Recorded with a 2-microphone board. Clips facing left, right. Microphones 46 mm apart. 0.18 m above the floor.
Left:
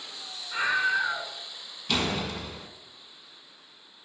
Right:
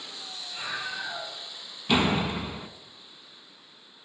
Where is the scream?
60° left (ahead or behind), 2.5 m.